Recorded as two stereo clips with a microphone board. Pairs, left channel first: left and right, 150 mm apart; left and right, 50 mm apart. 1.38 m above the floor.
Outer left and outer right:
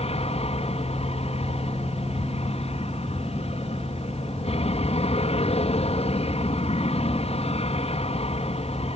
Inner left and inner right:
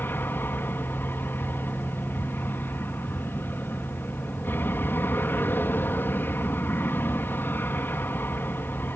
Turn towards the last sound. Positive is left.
turn(degrees=45)  # may be behind; listen again after turning